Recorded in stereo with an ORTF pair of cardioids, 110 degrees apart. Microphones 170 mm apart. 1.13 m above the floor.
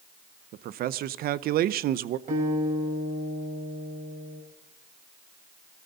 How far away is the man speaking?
About 0.7 m.